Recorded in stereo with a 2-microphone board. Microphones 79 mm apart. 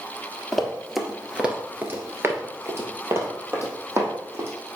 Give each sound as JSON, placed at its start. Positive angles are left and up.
{"t": 0.5, "sound": "running footsteps", "side_deg": 5, "distance_m": 2.0}